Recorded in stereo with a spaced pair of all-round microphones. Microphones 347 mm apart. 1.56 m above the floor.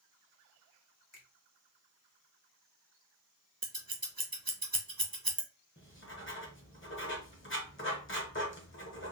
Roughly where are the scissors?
Right.